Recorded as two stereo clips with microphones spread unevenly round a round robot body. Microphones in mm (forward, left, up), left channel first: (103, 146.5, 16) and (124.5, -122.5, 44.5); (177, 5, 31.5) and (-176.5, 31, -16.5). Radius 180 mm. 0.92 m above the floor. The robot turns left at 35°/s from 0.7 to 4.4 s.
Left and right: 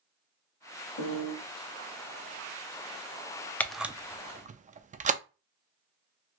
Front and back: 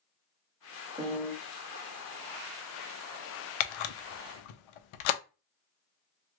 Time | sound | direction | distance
1.0 | a piano | 90° left | 0.7 m
3.6 | a camera shutter | 10° left | 0.5 m